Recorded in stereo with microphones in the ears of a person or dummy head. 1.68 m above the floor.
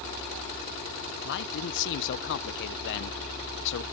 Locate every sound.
1.2 s a man speaking: 65° left (ahead or behind)